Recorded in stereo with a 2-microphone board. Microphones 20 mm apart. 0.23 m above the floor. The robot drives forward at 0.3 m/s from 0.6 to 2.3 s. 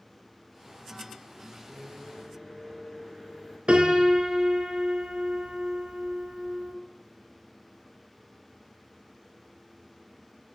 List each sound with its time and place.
1.7 s a microwave: 10° left (ahead or behind), 2.5 m
3.7 s a piano: 70° right (ahead or behind), 0.7 m